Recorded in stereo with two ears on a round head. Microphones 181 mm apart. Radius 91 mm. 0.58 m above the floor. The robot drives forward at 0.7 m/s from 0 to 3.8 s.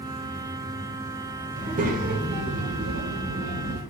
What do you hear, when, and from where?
1.6 s a child speaking: 35° right (ahead or behind), 1.3 m; by 3.8 s 50° right (ahead or behind), 1.0 m